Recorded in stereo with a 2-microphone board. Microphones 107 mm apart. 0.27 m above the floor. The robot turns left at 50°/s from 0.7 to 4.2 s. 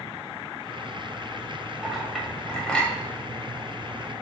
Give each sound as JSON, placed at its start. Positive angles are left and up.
{"t": 1.8, "sound": "a clink", "side_deg": -5, "distance_m": 0.9}